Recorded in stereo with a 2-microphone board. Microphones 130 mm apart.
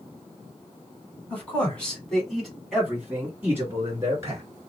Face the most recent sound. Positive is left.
turn(degrees=-25)  # may be behind; listen again after turning